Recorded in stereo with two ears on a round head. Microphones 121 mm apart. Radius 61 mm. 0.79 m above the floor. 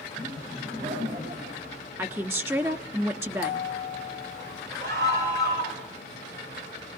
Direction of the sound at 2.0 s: 20° right (ahead or behind).